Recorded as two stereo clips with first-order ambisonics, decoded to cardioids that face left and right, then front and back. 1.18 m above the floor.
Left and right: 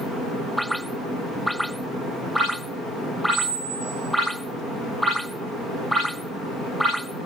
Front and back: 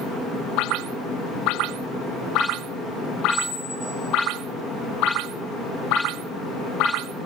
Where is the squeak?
80° right, 1.9 m.